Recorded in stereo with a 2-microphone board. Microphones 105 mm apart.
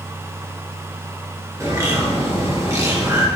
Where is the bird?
30° right (ahead or behind), 2 m.